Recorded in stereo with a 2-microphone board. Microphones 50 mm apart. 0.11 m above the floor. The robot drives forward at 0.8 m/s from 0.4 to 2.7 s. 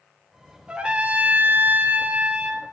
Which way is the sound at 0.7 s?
20° right (ahead or behind).